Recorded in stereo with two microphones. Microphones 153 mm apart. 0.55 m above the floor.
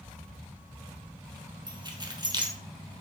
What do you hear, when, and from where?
1.7 s keys jangling: 30° right (ahead or behind), 1.3 m